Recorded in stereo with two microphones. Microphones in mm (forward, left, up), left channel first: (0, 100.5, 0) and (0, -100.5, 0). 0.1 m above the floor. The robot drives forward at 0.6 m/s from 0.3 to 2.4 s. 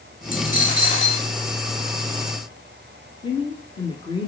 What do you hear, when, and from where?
0.3 s a dropped coin: 45° left (ahead or behind), 1.8 m; by 1.3 s 35° left (ahead or behind), 2.5 m
3.2 s a woman speaking: 20° left (ahead or behind), 1.3 m